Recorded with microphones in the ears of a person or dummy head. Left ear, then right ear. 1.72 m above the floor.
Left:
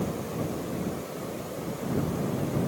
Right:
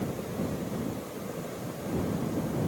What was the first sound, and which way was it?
Only background noise.